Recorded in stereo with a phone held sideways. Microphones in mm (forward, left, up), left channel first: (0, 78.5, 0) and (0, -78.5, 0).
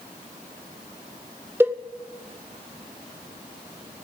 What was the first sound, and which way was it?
A cowbell, 15° right (ahead or behind).